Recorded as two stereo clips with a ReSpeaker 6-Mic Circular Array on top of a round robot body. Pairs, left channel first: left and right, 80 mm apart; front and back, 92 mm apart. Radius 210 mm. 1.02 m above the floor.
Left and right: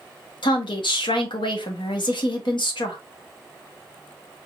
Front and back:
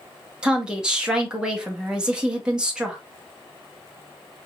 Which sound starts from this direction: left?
A woman speaking, at 0.4 s.